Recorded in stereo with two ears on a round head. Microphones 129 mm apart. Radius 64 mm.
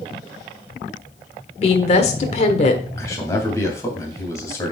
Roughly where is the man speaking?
Left.